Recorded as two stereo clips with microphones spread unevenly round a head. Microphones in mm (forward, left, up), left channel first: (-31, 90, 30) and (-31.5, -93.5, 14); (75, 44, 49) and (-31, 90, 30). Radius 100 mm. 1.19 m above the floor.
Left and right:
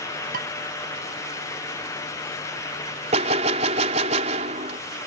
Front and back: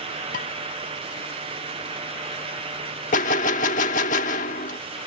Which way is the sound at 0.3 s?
40° right.